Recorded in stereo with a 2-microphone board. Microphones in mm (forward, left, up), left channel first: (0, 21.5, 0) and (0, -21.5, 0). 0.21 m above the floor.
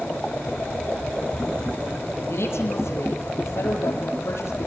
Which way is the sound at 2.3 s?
60° left (ahead or behind).